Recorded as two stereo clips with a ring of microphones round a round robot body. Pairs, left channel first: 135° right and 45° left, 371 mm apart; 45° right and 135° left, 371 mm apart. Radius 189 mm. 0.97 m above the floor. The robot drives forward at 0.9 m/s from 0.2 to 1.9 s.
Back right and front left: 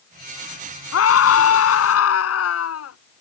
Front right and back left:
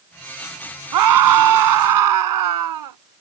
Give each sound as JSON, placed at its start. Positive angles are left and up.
{"t": 0.9, "sound": "a scream", "azimuth_deg": 170}